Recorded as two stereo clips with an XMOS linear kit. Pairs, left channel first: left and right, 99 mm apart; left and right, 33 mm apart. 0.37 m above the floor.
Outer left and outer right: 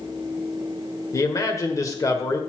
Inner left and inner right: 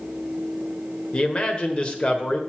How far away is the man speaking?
About 1.3 m.